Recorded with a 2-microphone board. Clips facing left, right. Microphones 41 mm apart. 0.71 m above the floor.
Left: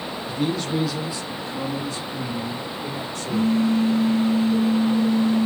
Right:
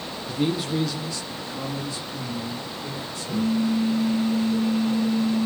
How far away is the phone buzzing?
About 1.0 m.